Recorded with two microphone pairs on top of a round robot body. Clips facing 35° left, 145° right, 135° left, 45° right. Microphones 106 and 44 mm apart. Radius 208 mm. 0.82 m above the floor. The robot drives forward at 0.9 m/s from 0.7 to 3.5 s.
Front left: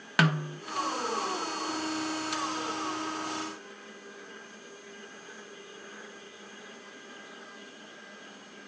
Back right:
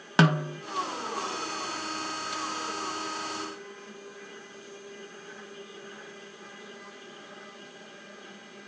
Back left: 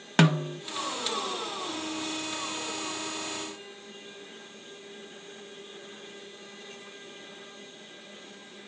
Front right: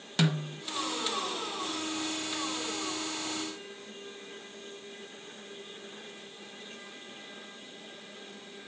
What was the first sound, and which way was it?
A snare drum, 160° left.